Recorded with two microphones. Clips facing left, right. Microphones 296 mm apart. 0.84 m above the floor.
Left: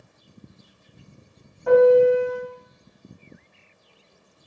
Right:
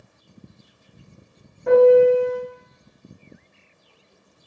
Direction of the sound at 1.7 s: 30° right (ahead or behind).